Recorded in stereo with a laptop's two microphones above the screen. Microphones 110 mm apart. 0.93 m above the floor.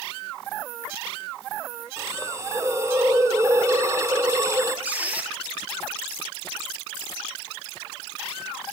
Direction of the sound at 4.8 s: 15° right (ahead or behind).